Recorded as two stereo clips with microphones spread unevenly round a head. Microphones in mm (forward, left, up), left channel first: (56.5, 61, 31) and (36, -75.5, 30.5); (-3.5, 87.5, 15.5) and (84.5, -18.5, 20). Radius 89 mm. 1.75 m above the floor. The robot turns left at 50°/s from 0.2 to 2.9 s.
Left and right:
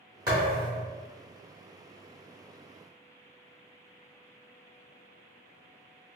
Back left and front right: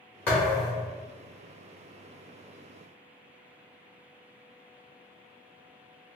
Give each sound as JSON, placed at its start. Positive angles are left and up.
{"t": 0.3, "sound": "a thud", "azimuth_deg": -150, "distance_m": 1.2}